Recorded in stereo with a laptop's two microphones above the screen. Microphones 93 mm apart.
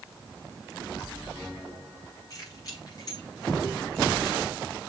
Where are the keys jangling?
40° left (ahead or behind), 5.5 m; by 4.5 s 50° left (ahead or behind), 4 m.